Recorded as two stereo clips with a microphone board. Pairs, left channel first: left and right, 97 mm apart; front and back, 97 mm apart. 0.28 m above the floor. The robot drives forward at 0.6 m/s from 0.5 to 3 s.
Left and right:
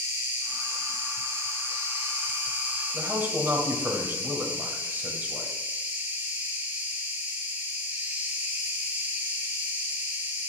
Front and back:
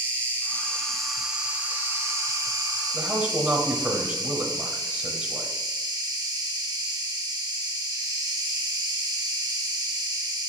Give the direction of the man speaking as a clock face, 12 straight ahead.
4 o'clock.